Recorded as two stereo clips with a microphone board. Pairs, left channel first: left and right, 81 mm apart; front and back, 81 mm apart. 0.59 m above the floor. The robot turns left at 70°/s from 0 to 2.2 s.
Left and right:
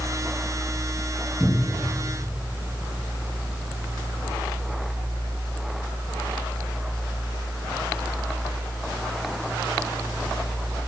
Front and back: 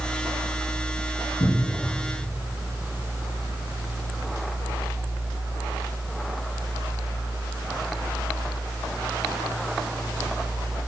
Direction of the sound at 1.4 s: 5° right.